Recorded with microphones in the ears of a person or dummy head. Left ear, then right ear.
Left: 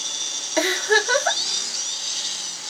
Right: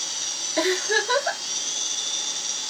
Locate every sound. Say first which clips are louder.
0.6 s a giggle: left 4 dB; 35° left (ahead or behind), 2 m